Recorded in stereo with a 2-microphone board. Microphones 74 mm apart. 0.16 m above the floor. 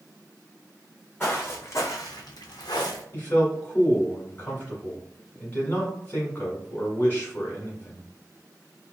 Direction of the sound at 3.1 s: 30° left (ahead or behind).